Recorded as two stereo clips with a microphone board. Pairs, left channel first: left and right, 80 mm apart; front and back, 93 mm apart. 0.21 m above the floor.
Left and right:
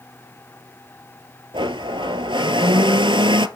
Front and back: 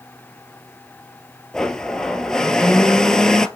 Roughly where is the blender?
Right.